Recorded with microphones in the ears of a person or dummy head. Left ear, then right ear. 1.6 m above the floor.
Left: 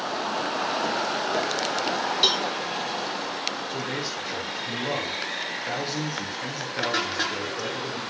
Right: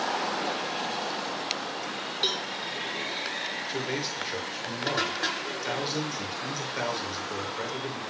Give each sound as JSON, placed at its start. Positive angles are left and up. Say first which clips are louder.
{"t": 2.2, "sound": "a cowbell", "louder": "left 6 dB", "side_deg": 20, "distance_m": 1.4}
{"t": 3.7, "sound": "a man speaking", "louder": "left 1 dB", "side_deg": -20, "distance_m": 6.0}